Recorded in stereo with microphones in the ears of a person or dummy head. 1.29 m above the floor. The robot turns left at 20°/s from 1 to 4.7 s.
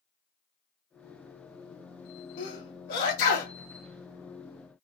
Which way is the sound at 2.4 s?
65° left (ahead or behind).